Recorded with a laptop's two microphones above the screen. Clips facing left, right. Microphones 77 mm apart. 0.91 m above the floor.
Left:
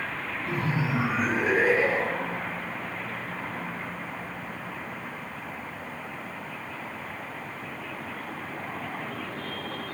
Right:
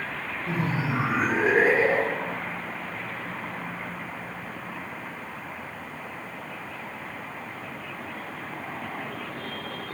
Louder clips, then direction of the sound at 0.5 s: Right 1 dB; 30° right (ahead or behind).